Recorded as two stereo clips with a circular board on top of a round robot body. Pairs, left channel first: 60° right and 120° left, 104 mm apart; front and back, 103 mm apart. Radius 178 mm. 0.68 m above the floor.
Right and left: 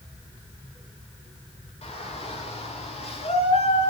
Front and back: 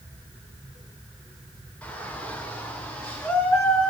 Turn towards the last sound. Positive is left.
turn(degrees=-85)